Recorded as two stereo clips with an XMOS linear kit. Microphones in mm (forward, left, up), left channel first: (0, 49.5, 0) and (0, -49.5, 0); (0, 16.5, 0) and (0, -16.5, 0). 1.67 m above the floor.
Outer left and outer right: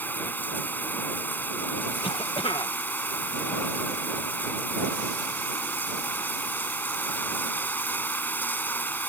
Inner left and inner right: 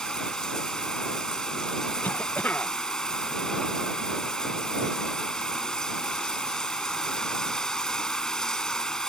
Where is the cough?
60° left (ahead or behind).